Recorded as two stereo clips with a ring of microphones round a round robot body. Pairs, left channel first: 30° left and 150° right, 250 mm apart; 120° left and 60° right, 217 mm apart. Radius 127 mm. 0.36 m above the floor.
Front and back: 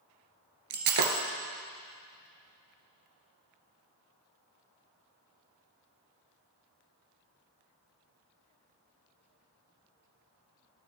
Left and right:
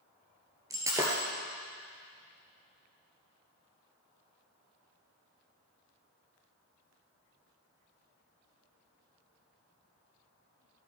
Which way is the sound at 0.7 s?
140° right.